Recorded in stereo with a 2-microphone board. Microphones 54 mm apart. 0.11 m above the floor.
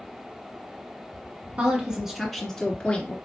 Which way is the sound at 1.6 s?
25° right (ahead or behind).